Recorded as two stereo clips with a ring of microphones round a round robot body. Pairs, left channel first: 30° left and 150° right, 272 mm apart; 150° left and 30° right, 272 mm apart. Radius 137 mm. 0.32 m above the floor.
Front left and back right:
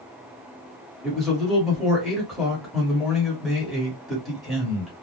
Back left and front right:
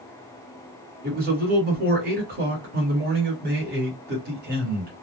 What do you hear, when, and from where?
1.0 s a man speaking: 60° right, 1.2 m